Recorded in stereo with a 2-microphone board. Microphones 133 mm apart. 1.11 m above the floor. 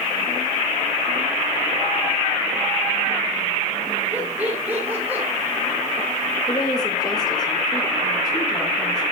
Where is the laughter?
15° right (ahead or behind), 4.5 m.